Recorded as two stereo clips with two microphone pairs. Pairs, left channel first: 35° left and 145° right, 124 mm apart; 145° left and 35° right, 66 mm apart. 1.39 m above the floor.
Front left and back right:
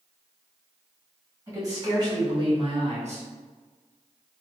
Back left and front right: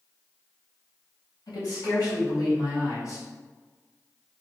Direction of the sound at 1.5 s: 150° left.